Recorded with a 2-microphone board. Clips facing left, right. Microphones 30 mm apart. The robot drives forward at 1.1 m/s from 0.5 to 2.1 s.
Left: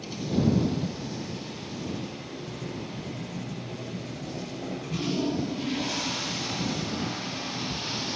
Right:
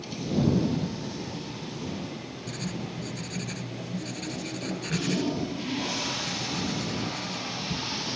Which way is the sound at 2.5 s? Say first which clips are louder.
Right 4 dB; 80° right.